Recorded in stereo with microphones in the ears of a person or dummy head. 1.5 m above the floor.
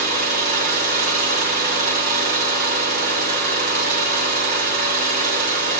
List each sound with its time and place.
0.0 s an engine running: 50° right (ahead or behind), 1.3 m